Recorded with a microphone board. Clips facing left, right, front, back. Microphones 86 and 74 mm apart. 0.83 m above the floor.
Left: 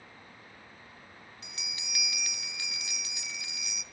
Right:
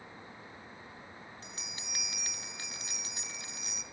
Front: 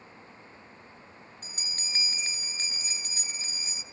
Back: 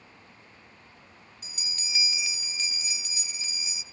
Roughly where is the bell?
Ahead right.